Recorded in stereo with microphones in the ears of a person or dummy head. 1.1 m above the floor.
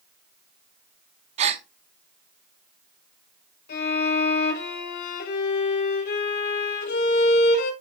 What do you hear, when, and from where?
1.4 s a gasp: 35° right (ahead or behind), 0.8 m
3.7 s a violin: 60° left (ahead or behind), 5.5 m